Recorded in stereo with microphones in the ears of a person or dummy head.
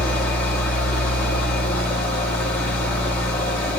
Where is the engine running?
10° left (ahead or behind), 5.5 m.